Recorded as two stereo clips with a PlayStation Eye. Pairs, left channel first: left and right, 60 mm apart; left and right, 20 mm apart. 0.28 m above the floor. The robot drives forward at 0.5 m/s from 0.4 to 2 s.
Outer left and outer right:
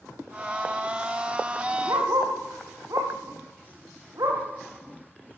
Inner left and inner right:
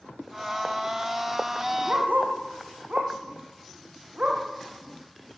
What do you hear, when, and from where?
1.9 s a dog barking: 85° right, 7 m; by 4.4 s 80° right, 7 m